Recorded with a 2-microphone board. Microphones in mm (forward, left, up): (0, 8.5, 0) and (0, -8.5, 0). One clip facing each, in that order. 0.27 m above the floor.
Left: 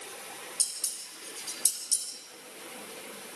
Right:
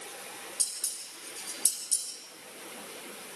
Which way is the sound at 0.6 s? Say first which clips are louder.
Left 2 dB; 40° left (ahead or behind).